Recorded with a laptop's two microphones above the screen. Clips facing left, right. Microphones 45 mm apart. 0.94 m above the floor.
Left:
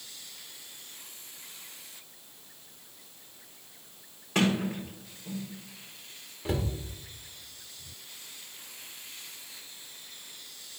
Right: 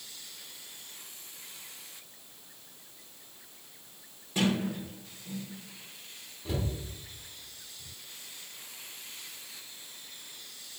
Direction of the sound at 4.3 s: 80° left.